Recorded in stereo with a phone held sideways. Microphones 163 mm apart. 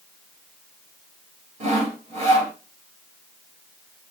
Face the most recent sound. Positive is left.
turn(degrees=-50)  # may be behind; listen again after turning